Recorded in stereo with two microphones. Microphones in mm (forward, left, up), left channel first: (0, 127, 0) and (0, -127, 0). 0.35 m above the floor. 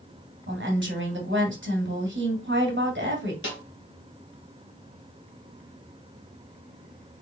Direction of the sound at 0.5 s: 45° right (ahead or behind).